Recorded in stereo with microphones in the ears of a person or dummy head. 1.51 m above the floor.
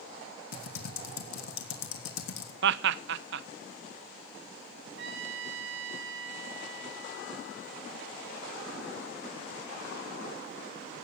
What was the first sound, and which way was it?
Typing on a keyboard, 85° left.